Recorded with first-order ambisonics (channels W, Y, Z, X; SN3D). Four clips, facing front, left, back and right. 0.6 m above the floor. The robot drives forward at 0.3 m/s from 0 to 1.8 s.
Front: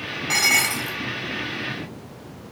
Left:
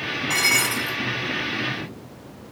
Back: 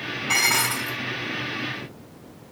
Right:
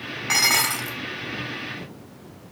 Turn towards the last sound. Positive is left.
turn(degrees=-90)